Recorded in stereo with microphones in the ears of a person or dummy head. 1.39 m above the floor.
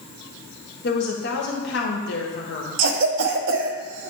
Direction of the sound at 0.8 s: 55° left (ahead or behind).